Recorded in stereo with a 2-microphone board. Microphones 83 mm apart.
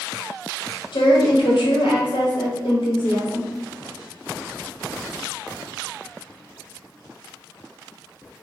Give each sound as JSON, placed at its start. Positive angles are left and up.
{"t": 0.9, "sound": "a woman speaking", "side_deg": 70, "distance_m": 0.8}